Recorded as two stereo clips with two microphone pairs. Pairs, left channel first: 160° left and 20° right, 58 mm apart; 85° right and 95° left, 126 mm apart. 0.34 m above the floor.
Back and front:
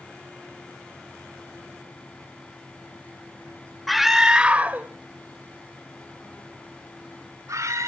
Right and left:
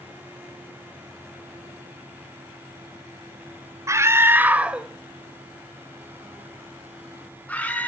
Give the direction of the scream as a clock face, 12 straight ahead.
9 o'clock.